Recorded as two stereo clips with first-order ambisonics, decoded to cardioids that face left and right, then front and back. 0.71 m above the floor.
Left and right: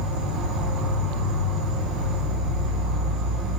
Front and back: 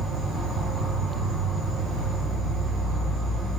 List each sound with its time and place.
0.0 s an insect: 85° right, 1.4 m